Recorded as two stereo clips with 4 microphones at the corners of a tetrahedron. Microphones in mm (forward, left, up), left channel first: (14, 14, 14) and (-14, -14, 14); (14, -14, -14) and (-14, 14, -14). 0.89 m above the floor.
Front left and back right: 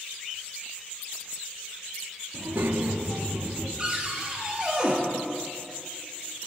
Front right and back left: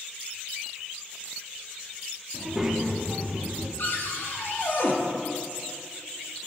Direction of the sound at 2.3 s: 140° right.